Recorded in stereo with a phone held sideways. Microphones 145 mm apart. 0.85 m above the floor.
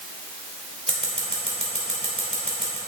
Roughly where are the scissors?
Right.